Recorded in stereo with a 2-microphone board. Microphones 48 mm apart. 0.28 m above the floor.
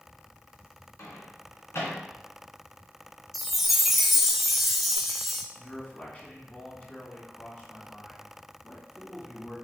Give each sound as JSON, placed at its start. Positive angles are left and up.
{"t": 1.0, "sound": "a microwave", "side_deg": 60, "distance_m": 3.0}
{"t": 3.3, "sound": "a chime", "side_deg": 0, "distance_m": 0.8}
{"t": 5.5, "sound": "a man speaking", "side_deg": 30, "distance_m": 2.5}